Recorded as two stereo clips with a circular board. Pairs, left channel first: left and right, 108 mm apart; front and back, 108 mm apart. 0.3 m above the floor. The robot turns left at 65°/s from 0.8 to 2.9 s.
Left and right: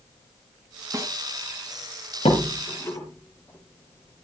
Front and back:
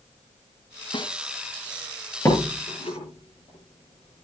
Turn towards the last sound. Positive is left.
turn(degrees=25)